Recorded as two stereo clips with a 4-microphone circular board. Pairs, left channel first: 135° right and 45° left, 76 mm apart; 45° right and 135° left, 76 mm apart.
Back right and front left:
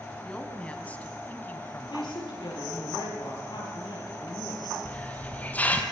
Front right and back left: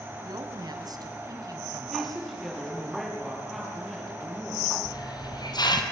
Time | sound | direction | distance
0.2 | a woman speaking | 150° left | 3 m
1.9 | a woman speaking | 135° right | 8.5 m
4.8 | a hiss | 65° right | 2.5 m